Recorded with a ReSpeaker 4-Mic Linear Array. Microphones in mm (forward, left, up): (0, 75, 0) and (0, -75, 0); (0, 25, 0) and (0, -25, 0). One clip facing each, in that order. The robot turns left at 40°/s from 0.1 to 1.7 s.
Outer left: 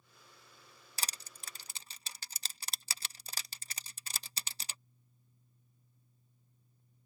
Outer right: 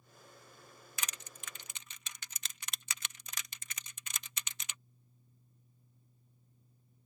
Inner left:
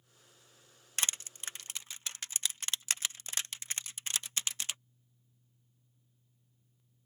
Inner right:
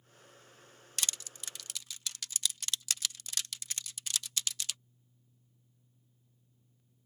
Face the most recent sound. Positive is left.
turn(degrees=35)  # may be behind; listen again after turning